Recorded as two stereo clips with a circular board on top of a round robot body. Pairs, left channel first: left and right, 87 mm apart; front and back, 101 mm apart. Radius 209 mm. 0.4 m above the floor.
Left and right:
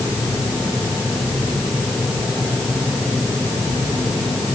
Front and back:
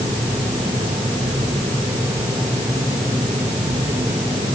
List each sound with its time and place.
Only background noise.